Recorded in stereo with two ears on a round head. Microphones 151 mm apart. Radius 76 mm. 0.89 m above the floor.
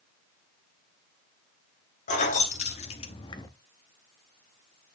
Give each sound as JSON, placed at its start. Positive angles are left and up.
{"t": 2.1, "sound": "keys jangling", "side_deg": 45, "distance_m": 1.6}